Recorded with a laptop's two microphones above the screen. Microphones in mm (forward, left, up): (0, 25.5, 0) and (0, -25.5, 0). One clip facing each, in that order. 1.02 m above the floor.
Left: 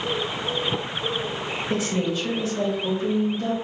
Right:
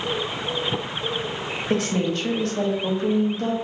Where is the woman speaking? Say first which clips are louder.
Right 3 dB; 60° right (ahead or behind), 1.0 m.